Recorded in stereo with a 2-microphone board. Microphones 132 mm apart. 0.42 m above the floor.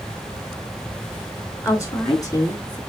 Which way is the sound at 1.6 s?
20° left (ahead or behind).